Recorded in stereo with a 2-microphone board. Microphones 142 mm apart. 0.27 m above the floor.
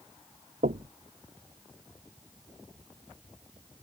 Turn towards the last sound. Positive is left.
turn(degrees=-80)